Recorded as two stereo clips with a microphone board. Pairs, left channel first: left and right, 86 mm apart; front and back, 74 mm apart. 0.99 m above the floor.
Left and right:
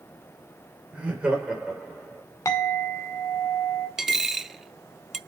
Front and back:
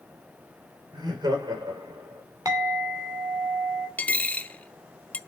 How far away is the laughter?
About 5 m.